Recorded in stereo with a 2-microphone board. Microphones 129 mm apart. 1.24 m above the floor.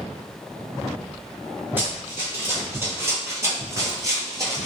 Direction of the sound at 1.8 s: 15° right (ahead or behind).